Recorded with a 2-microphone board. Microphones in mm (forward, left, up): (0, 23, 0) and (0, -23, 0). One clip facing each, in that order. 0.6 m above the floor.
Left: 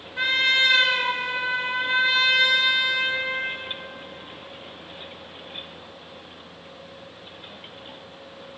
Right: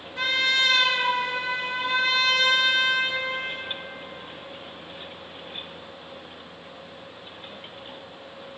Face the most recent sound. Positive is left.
turn(degrees=15)  # may be behind; listen again after turning